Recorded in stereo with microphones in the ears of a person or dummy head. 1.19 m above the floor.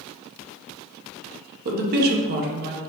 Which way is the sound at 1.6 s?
45° right (ahead or behind).